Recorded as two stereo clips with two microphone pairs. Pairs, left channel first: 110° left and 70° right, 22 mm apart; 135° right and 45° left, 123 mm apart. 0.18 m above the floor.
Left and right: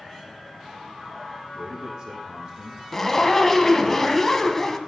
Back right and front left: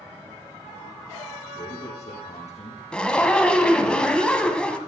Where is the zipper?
155° left, 1.1 m.